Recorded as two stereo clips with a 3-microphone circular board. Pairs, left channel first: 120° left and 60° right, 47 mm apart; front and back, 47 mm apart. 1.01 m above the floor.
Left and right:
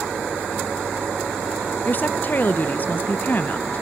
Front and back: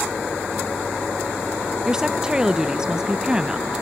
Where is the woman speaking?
115° left, 0.6 m.